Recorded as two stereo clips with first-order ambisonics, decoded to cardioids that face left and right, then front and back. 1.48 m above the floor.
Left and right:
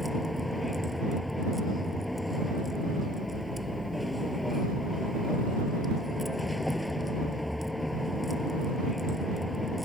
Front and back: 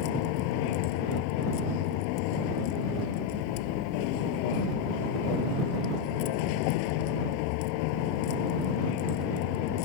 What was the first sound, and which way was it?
A vehicle, 5° left.